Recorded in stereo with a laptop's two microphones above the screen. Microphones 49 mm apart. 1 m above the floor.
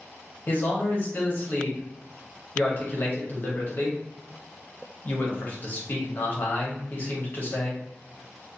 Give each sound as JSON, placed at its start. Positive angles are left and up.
{"t": 0.5, "sound": "a man speaking", "side_deg": 40, "distance_m": 1.0}